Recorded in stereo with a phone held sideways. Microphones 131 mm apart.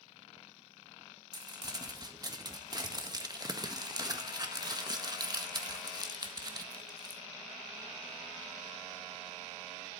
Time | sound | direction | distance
1.3 | crumpling | 30° right (ahead or behind) | 1.6 m